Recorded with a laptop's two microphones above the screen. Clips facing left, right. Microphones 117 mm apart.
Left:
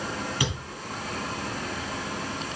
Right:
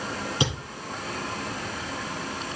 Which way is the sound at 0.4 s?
25° right (ahead or behind).